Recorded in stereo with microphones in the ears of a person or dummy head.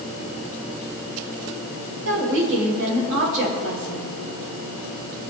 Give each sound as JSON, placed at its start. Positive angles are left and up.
{"t": 2.0, "sound": "a woman speaking", "side_deg": -65, "distance_m": 5.0}